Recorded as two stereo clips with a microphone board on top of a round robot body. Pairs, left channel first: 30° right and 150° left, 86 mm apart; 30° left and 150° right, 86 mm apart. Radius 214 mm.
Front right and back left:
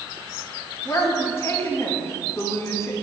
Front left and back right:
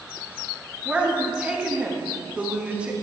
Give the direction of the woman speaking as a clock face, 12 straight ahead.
3 o'clock.